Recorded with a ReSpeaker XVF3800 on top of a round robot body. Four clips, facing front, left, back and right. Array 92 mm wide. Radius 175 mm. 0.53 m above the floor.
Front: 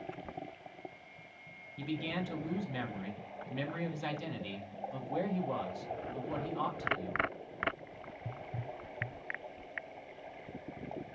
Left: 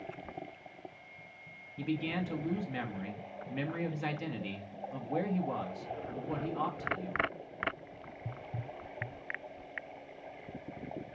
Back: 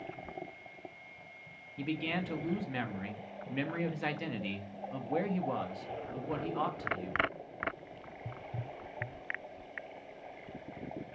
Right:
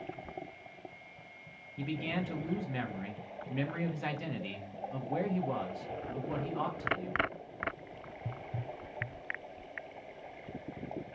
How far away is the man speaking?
About 1.3 m.